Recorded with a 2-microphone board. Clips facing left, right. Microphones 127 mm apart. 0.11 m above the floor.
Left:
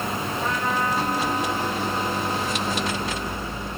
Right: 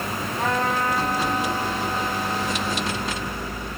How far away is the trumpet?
About 8 m.